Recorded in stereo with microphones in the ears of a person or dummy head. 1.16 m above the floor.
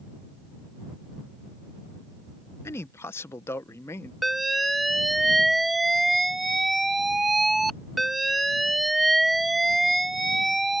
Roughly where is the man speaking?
Centre.